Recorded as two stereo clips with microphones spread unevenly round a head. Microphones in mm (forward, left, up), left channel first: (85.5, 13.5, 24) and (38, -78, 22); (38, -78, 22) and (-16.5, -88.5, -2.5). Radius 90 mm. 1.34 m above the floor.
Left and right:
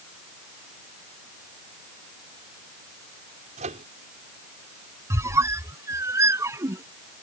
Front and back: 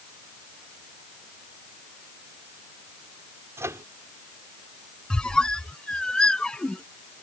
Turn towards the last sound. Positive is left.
turn(degrees=-55)